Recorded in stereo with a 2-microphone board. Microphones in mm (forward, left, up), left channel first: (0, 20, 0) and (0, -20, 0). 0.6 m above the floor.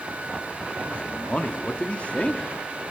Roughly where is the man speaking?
Left.